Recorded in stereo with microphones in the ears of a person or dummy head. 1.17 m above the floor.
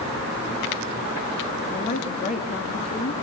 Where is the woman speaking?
45° left (ahead or behind), 1.8 m.